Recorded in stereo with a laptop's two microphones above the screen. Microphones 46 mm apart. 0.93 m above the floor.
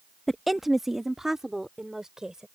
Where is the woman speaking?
5° left (ahead or behind); by 2.5 s 15° right (ahead or behind).